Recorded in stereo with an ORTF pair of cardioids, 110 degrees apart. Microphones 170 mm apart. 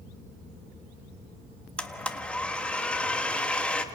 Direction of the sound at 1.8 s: 5° left.